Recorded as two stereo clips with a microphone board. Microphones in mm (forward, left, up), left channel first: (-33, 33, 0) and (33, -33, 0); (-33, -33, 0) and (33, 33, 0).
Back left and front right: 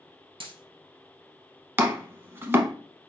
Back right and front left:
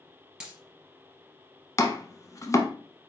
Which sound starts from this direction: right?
Chopping, at 1.8 s.